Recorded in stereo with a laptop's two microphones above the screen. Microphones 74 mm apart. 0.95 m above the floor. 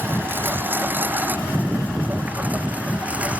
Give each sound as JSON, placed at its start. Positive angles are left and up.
{"t": 0.0, "sound": "a lawn mower", "side_deg": -30}